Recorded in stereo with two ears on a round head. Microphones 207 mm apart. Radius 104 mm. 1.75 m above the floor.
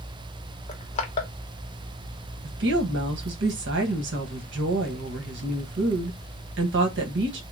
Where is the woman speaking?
55° right (ahead or behind), 1.3 m.